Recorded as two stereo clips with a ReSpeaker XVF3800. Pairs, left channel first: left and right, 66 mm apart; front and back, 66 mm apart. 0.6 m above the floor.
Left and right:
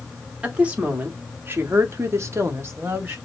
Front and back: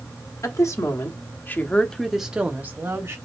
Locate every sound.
0.4 s a woman speaking: 20° right, 1.4 m; by 3.2 s 140° right, 1.1 m